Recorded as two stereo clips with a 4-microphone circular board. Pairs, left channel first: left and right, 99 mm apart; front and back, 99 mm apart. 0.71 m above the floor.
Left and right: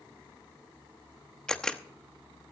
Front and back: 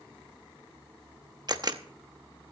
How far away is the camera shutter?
About 0.8 m.